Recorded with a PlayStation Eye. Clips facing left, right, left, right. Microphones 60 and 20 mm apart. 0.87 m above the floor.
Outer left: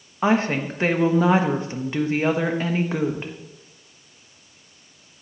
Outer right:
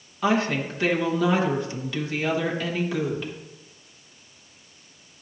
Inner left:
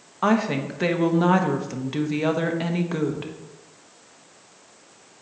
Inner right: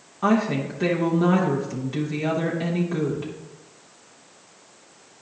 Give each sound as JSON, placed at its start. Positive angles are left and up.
{"t": 0.2, "sound": "a woman speaking", "side_deg": 30, "distance_m": 1.2}